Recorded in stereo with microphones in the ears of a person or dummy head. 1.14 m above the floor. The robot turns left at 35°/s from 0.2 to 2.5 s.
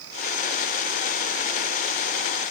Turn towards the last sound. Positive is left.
No sound to turn to.